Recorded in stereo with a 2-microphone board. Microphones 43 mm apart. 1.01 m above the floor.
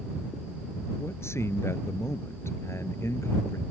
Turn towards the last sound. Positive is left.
turn(degrees=75)  # may be behind; listen again after turning